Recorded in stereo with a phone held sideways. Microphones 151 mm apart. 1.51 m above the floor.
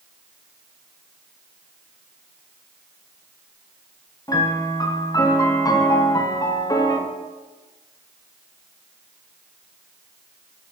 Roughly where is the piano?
Left.